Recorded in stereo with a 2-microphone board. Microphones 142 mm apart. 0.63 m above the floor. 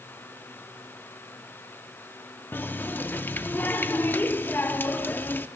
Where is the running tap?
15° left (ahead or behind), 0.6 m.